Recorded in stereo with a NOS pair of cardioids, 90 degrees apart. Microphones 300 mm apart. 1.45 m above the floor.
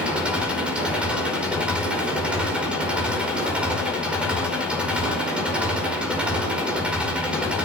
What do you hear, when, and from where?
0.0 s an engine running: 5° right, 5 m